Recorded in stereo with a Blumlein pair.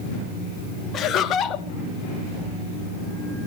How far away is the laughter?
About 1.1 m.